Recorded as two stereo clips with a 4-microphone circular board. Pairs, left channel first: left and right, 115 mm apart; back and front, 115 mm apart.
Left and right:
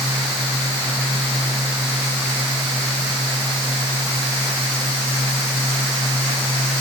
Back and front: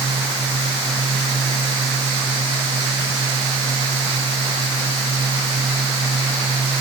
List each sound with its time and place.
Only background noise.